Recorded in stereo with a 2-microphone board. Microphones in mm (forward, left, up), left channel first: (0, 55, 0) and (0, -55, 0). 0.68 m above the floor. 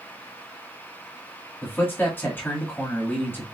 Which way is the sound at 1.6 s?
20° left (ahead or behind).